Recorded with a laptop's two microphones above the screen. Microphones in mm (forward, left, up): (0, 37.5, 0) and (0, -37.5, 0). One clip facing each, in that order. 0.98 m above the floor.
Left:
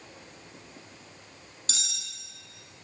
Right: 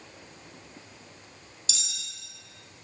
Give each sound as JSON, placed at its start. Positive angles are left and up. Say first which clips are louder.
{"t": 1.7, "sound": "cutlery clinking", "louder": "left 2 dB", "side_deg": 45, "distance_m": 0.5}